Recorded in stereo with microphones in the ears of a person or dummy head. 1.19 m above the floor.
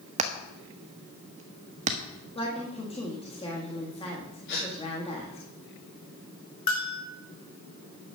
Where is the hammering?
35° right (ahead or behind), 1.0 m.